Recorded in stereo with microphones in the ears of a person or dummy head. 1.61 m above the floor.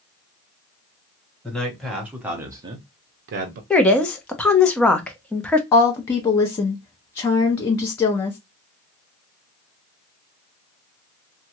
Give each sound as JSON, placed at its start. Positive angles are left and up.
{"t": 1.4, "sound": "a man speaking", "side_deg": 5, "distance_m": 1.4}
{"t": 3.7, "sound": "a woman speaking", "side_deg": 10, "distance_m": 0.7}
{"t": 5.7, "sound": "a woman speaking", "side_deg": 20, "distance_m": 0.6}